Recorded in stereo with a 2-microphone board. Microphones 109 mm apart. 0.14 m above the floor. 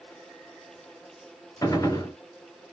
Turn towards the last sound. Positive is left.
turn(degrees=30)  # may be behind; listen again after turning